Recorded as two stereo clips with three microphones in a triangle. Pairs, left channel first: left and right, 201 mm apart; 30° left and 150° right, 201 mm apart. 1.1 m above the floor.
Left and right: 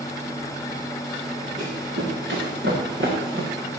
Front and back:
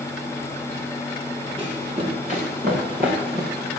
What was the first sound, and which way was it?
Running footsteps, 90° right.